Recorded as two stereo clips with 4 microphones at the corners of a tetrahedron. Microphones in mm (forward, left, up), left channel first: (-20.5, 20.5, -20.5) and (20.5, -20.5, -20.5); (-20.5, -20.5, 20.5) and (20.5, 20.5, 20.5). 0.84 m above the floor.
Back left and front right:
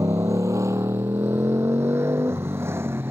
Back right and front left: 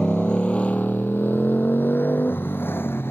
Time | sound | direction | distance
0.0 | a motorcycle | 60° right | ?